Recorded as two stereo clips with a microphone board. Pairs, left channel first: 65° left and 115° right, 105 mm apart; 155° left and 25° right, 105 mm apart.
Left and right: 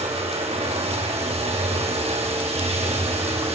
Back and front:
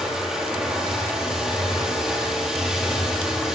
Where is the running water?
105° right, 9 m.